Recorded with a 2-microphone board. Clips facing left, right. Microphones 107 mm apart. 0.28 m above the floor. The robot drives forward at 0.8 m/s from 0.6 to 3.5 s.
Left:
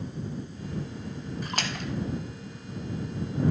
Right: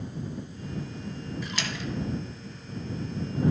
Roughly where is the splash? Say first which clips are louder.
Left 3 dB; left.